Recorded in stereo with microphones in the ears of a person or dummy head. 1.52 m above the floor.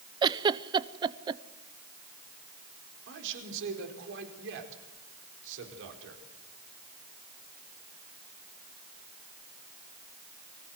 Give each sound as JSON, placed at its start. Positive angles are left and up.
{"t": 0.2, "sound": "a giggle", "side_deg": -25, "distance_m": 0.7}
{"t": 3.1, "sound": "a man speaking", "side_deg": -70, "distance_m": 5.0}